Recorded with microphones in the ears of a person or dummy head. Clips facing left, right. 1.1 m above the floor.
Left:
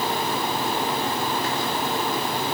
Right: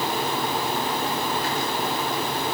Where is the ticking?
No ticking in this recording.